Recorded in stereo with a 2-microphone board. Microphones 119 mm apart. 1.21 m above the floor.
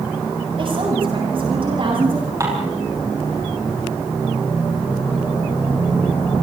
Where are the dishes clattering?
30° right (ahead or behind), 7 m.